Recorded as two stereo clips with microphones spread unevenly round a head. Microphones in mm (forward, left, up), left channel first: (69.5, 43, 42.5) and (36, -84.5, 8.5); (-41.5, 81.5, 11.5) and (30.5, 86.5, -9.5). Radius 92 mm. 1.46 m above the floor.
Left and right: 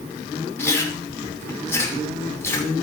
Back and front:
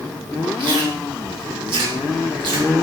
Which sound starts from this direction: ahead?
Chewing, at 0.6 s.